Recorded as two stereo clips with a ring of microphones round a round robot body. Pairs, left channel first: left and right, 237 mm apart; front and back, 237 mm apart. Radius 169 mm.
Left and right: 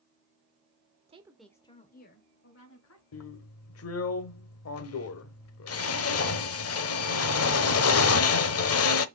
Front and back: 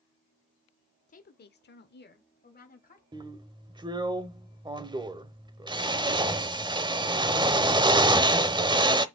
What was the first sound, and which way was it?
A woman speaking, 40° right.